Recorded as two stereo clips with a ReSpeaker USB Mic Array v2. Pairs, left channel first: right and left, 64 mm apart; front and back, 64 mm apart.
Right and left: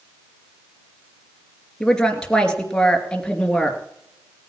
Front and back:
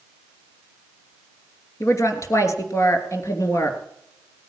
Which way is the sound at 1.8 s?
15° right.